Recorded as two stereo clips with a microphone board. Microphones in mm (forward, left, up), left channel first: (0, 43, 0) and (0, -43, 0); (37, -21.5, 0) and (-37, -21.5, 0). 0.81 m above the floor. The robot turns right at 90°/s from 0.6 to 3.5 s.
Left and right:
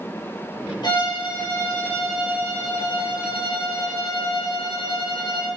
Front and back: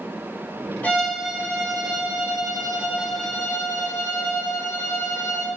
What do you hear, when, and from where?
0.8 s a violin: 65° left, 5 m; by 5.5 s 55° right, 5 m